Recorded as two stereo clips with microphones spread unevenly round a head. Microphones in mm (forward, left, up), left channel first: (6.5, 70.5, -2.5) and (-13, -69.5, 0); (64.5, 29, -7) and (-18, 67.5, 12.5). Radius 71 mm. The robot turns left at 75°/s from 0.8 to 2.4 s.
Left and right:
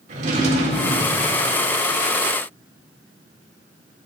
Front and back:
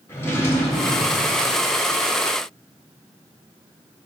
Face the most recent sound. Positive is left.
turn(degrees=140)